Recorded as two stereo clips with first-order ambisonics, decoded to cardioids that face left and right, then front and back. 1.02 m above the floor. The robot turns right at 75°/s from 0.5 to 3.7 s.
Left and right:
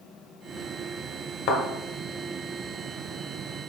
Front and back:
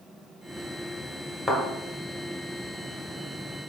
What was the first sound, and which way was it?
A thud, 85° left.